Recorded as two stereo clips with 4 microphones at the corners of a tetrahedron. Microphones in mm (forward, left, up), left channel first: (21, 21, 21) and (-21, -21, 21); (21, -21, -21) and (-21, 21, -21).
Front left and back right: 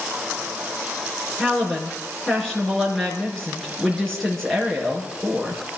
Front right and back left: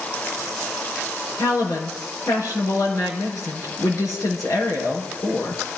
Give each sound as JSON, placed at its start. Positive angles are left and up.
{"t": 1.4, "sound": "a woman speaking", "azimuth_deg": -40, "distance_m": 5.0}